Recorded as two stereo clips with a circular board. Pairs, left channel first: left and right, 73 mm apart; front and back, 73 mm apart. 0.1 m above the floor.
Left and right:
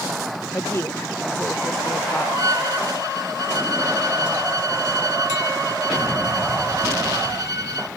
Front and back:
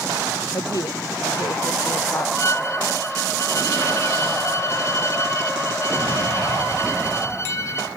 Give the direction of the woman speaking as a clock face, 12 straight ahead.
11 o'clock.